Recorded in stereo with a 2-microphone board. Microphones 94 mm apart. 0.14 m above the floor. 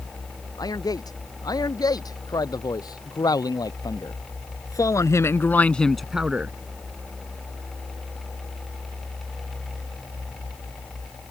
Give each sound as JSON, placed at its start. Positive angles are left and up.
{"t": 0.6, "sound": "a man speaking", "side_deg": 45}